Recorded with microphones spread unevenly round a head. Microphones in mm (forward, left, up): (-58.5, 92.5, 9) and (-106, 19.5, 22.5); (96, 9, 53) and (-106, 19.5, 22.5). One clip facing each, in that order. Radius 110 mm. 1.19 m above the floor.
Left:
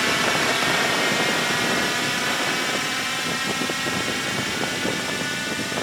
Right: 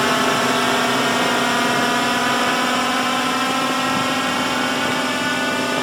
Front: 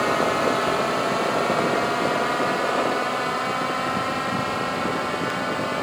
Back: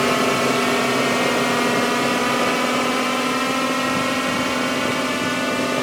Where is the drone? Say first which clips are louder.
Right 5 dB, back 3 dB; 150° right; by 5.8 s 145° right.